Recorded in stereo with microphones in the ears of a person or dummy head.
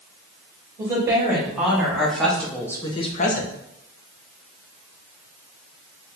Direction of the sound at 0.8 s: 10° right (ahead or behind).